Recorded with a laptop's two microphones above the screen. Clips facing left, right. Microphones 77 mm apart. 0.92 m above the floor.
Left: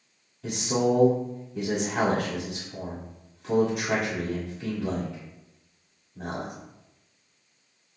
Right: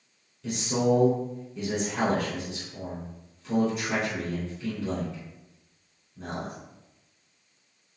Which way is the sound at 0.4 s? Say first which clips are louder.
Left 1 dB; 75° left (ahead or behind).